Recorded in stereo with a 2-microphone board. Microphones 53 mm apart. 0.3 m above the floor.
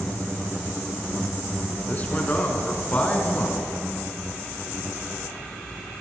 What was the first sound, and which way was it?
A man speaking, 30° left (ahead or behind).